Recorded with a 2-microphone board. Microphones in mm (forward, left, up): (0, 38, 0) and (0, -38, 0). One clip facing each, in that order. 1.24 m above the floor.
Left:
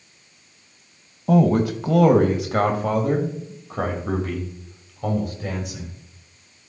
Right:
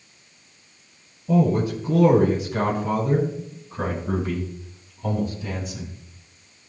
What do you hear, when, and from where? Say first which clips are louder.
1.3 s a man speaking: left 3 dB; 75° left (ahead or behind), 1.4 m; by 5.9 s 70° left (ahead or behind), 5 m